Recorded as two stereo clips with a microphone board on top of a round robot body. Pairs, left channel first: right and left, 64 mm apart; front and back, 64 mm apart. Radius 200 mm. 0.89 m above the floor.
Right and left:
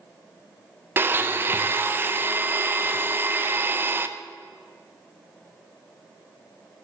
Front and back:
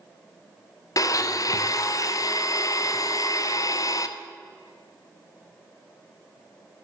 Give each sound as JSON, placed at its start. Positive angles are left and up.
{"t": 1.0, "sound": "a blender", "azimuth_deg": 35, "distance_m": 0.8}